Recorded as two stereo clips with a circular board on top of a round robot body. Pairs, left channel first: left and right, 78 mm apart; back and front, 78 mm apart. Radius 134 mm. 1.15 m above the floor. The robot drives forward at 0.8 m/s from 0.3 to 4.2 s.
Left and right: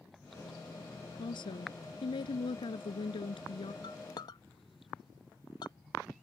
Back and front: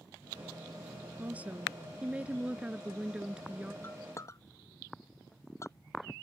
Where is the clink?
115° left; by 5.7 s 125° left.